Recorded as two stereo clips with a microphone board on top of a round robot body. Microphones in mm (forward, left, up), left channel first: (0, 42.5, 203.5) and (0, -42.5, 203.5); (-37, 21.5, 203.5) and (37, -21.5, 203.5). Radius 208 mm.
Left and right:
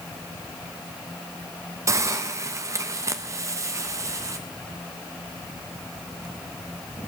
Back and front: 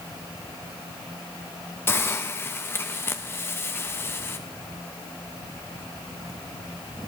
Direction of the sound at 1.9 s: 145° right.